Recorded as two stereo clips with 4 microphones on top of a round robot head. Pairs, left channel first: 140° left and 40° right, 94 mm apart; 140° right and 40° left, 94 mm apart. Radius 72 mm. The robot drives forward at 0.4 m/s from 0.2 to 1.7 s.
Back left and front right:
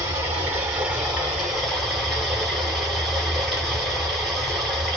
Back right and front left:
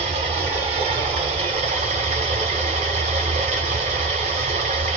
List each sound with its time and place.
0.0 s running water: 30° left, 1.4 m; by 5.0 s 50° left, 1.0 m